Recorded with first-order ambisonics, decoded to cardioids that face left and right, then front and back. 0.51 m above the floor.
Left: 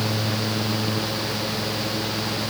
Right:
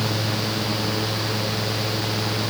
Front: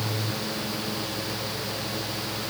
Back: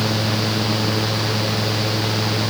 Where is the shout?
No shout in this recording.